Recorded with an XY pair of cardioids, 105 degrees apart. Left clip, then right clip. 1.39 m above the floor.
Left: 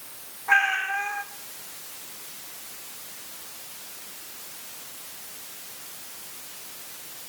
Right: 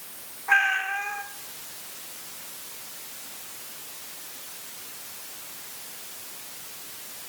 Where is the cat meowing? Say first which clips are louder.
Even; 5° left, 2.5 m.